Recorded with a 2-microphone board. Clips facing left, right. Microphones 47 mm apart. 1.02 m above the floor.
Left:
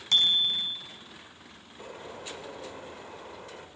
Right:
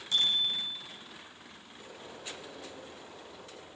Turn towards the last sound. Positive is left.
turn(degrees=50)  # may be behind; listen again after turning